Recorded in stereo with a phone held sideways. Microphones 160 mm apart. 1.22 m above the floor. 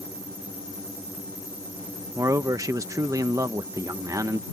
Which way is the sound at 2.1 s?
20° right (ahead or behind).